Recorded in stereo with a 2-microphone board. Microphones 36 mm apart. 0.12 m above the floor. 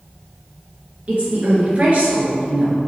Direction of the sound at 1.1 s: 40° right (ahead or behind).